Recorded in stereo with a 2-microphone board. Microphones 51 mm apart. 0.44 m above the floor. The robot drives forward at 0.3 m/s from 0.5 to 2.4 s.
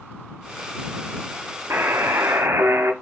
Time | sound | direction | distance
1.7 | a buzzer | 60° right (ahead or behind) | 0.5 m